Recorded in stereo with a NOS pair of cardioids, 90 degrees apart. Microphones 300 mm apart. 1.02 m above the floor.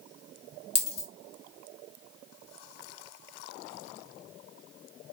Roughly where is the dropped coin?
Ahead left.